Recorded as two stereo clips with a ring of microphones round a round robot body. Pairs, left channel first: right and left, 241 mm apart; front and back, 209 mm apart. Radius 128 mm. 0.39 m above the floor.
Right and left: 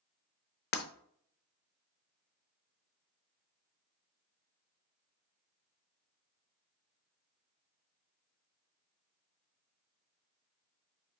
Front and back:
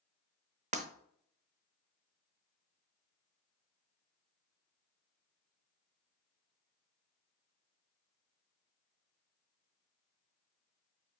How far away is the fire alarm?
No fire alarm in this recording.